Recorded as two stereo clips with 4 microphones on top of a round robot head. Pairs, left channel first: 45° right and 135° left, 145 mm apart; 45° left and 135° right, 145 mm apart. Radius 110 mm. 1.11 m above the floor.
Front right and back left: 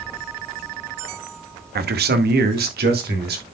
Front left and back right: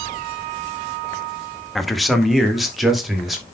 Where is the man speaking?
135° left, 0.9 m; by 3.4 s 140° left, 3 m.